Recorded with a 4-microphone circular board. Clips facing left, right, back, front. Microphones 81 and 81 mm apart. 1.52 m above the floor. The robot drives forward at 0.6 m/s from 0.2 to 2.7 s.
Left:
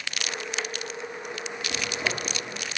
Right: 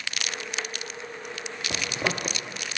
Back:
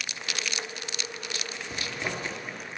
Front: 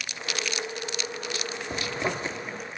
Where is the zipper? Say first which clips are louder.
Right 2 dB, front 4 dB; 50° right, 1.1 m; by 2.4 s 70° right, 0.9 m.